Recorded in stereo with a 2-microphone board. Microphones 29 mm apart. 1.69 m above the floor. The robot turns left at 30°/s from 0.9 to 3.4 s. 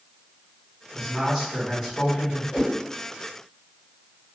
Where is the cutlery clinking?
No cutlery clinking in this recording.